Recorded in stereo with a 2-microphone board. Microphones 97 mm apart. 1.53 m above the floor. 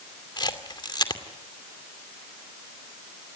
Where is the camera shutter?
50° left (ahead or behind), 2.5 m.